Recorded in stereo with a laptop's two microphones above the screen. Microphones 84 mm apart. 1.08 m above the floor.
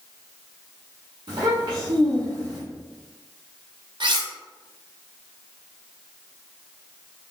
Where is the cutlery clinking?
65° right (ahead or behind), 0.7 m.